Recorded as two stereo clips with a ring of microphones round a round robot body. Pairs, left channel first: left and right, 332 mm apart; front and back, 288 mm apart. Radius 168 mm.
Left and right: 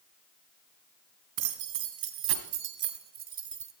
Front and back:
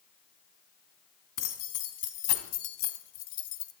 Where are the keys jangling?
45° right, 2.5 m; by 3.7 s 20° right, 1.4 m.